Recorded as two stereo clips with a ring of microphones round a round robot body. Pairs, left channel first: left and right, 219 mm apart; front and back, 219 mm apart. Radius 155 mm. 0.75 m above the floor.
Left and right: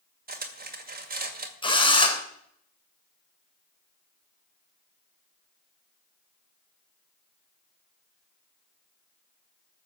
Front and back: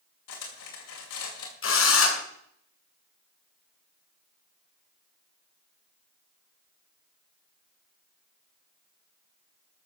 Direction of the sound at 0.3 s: 40° right.